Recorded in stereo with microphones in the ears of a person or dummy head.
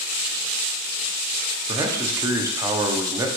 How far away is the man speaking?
About 1.0 m.